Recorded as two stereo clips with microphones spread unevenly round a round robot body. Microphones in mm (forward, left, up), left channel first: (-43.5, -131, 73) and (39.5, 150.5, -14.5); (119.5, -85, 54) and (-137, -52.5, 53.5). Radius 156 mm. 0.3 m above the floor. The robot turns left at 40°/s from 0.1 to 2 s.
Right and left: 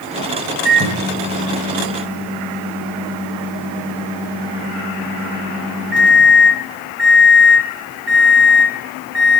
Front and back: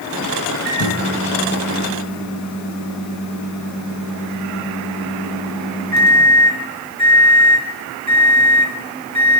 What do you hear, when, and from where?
0.7 s a microwave: 45° left, 2.5 m; by 9.4 s 5° right, 2.5 m